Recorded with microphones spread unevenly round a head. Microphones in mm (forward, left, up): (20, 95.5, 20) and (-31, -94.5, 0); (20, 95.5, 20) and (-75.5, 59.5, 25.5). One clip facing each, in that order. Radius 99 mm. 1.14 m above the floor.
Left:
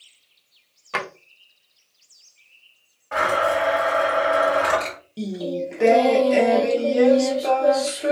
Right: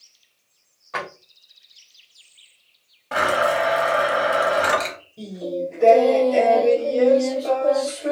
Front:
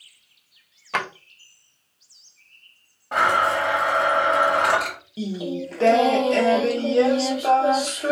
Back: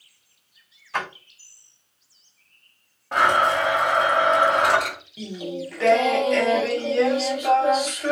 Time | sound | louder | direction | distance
0.9 | a drawer | left 1 dB, front 2 dB | 30° left | 0.6 m
3.1 | a blender | right 1 dB, back 1 dB | 65° right | 1.1 m
5.2 | singing | left 1 dB, front 4 dB | 80° left | 0.7 m